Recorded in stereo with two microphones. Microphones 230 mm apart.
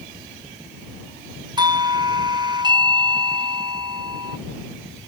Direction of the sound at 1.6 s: 20° right (ahead or behind).